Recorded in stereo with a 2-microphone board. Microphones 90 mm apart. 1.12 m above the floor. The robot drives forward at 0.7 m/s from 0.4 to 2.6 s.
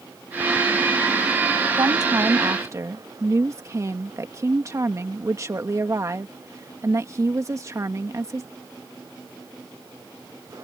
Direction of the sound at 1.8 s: 50° right (ahead or behind).